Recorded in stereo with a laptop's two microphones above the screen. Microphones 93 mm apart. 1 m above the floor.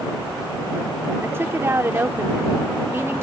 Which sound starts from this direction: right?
A woman speaking, at 1.2 s.